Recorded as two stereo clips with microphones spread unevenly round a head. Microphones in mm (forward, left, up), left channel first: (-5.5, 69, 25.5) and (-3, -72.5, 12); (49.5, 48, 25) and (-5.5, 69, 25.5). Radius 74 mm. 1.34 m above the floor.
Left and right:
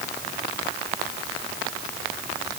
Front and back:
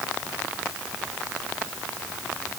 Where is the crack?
No crack in this recording.